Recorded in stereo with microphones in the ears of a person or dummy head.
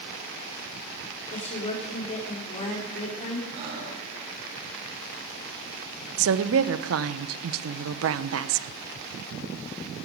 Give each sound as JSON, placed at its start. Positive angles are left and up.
{"t": 1.3, "sound": "a woman speaking", "side_deg": 40, "distance_m": 4.0}
{"t": 3.5, "sound": "breathing", "side_deg": -55, "distance_m": 10.0}
{"t": 6.2, "sound": "a woman speaking", "side_deg": -70, "distance_m": 0.9}